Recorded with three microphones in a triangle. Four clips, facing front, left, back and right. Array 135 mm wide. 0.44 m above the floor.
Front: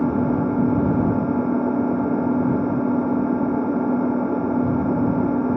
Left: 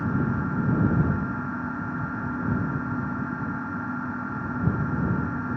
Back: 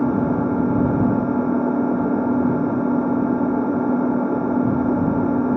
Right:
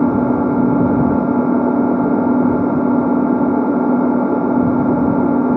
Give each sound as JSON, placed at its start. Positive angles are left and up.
{"t": 0.0, "sound": "an engine running", "azimuth_deg": -95}